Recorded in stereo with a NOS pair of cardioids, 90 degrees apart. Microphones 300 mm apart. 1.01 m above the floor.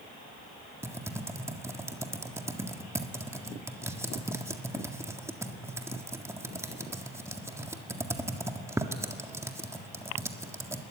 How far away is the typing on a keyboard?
About 1.8 m.